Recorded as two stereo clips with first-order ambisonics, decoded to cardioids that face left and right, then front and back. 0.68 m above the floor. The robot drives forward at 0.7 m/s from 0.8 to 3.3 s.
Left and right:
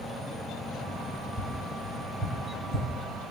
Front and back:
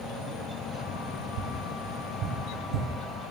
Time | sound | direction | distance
1.4 | tapping | 175° right | 3.5 m